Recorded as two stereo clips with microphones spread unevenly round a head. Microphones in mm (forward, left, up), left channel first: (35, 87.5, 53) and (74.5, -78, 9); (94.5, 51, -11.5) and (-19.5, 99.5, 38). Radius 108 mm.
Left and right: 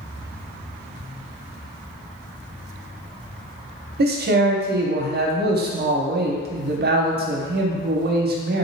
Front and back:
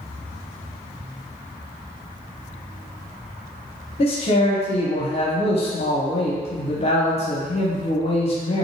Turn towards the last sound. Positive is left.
turn(degrees=-60)